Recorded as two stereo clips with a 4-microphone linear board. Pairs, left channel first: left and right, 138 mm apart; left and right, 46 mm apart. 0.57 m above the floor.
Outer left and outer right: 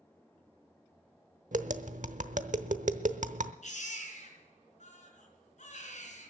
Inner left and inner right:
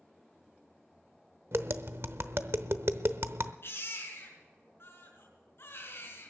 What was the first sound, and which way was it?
Tapping, 65° right (ahead or behind).